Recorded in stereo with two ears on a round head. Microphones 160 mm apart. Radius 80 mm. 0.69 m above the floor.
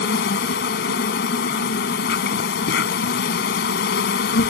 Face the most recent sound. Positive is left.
turn(degrees=65)  # may be behind; listen again after turning